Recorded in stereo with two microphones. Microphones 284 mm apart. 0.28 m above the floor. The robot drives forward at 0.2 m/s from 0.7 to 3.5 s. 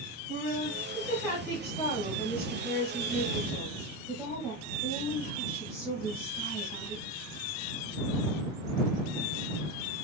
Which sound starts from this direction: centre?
A woman speaking, at 0.3 s.